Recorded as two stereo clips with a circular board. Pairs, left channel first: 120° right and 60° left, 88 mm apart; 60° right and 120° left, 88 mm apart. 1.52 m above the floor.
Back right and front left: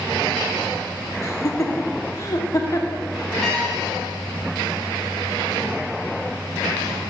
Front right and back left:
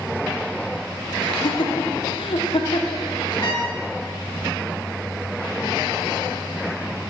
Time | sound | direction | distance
1.2 | laughter | 65° right | 1.1 m
3.4 | a trumpet | 35° right | 1.9 m